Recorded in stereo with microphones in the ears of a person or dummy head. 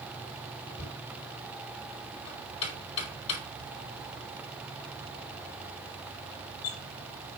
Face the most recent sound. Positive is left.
turn(degrees=30)  # may be behind; listen again after turning